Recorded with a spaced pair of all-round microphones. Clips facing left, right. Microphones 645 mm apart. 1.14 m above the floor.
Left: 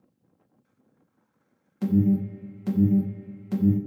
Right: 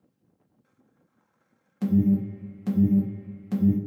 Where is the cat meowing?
I don't hear a cat meowing.